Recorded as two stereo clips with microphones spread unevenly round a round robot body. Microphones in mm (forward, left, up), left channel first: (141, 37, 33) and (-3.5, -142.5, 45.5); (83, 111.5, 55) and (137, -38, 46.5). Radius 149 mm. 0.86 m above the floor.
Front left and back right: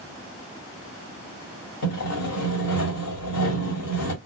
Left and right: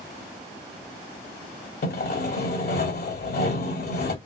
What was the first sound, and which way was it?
Sawing, 95° left.